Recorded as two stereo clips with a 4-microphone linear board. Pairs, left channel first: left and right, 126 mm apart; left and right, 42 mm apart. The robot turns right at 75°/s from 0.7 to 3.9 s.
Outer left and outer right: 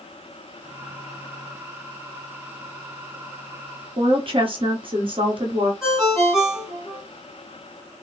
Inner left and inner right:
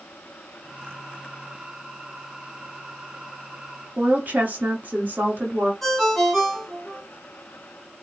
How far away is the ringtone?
About 1.7 m.